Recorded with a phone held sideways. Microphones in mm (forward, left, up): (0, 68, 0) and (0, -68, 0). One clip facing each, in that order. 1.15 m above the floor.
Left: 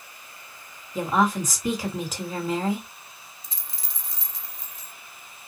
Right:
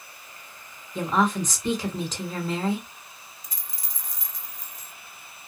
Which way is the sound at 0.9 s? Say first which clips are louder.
Left 1 dB; 10° left (ahead or behind).